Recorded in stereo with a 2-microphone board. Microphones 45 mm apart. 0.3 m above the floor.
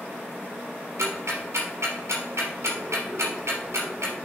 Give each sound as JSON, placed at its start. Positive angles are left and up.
{"t": 1.0, "sound": "ticking", "side_deg": -85, "distance_m": 3.0}